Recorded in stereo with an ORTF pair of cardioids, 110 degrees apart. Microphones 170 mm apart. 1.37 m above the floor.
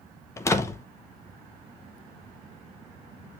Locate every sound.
0.4 s a door slam: 15° left, 1.0 m